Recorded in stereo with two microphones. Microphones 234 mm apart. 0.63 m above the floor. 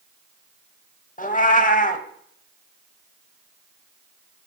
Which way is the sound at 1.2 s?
35° left (ahead or behind).